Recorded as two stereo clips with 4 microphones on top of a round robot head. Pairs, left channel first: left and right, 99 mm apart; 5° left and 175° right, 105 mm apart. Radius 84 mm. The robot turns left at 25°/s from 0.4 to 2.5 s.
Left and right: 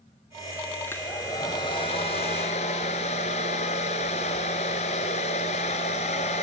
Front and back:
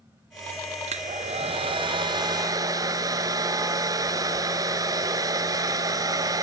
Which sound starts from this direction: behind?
A hair dryer, at 0.9 s.